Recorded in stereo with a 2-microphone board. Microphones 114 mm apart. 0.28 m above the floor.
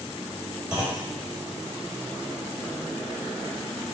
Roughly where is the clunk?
Centre.